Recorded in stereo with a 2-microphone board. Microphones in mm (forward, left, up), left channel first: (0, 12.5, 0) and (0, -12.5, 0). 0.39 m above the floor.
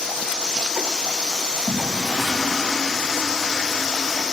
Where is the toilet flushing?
10° left (ahead or behind), 2 m.